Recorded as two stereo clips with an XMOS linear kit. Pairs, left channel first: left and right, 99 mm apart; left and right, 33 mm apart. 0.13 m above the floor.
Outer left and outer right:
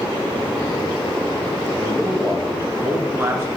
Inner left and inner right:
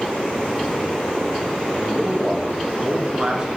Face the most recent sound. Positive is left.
turn(degrees=-25)  # may be behind; listen again after turning